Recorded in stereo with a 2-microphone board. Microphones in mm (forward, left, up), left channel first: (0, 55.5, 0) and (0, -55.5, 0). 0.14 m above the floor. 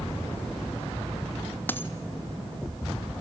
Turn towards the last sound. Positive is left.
turn(degrees=15)  # may be behind; listen again after turning